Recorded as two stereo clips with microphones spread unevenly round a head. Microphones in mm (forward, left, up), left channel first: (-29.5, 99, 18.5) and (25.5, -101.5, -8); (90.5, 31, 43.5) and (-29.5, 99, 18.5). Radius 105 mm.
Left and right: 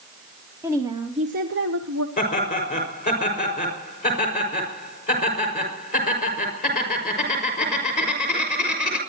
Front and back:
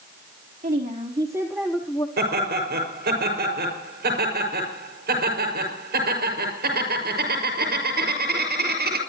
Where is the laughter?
160° left, 6 m.